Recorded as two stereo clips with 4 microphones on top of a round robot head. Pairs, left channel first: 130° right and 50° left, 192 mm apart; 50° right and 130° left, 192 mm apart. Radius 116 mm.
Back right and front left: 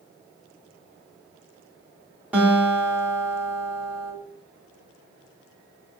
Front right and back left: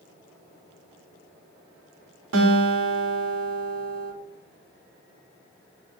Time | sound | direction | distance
2.3 | a guitar | 135° left | 3.5 m